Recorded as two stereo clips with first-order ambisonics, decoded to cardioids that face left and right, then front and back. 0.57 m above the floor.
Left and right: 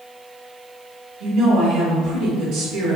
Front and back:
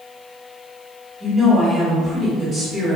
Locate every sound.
1.2 s a woman speaking: 120° right, 0.8 m